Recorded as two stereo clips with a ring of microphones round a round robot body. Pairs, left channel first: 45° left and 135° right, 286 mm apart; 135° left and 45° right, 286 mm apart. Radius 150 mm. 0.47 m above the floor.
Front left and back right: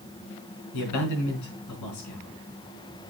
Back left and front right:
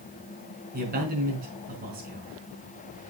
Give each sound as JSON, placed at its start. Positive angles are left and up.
{"t": 0.7, "sound": "a man speaking", "azimuth_deg": 15, "distance_m": 4.5}